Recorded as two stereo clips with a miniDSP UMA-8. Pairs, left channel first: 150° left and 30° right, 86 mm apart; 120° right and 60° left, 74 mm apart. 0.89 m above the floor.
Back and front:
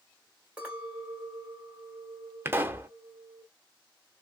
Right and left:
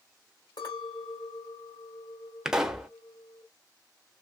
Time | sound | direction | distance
0.6 | a clink | 105° right | 2 m
2.5 | a pop | 10° right | 0.6 m